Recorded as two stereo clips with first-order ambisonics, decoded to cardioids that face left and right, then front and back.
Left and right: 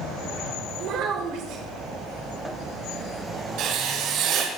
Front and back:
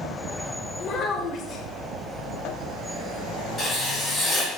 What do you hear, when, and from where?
0.8 s a child speaking: 55° right, 1.8 m
3.6 s writing: 70° right, 4.5 m